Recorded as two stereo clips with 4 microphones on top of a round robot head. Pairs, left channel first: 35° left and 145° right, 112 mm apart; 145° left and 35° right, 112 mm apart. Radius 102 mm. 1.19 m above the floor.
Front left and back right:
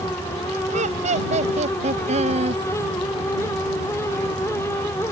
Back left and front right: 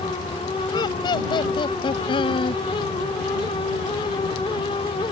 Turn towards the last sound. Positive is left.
turn(degrees=-170)